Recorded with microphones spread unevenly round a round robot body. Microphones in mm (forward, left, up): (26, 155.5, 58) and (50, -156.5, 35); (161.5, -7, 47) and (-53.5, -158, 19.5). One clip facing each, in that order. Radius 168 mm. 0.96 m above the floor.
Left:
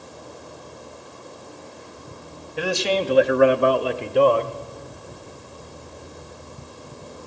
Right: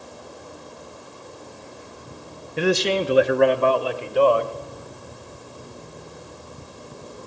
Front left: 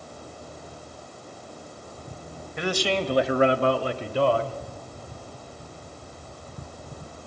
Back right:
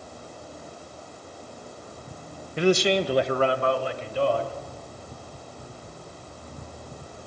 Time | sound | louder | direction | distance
2.6 | a man speaking | right 3 dB, back right 6 dB | 125° right | 0.7 m